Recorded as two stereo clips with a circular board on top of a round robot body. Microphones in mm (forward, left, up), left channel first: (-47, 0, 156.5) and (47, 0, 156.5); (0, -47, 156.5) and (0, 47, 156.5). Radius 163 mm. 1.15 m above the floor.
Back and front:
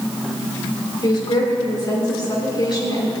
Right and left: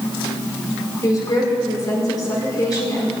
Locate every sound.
1.0 s a woman speaking: 140° right, 5.5 m